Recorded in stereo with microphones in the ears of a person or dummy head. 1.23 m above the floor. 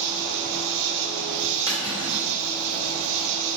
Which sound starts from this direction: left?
Cutlery clinking, at 1.7 s.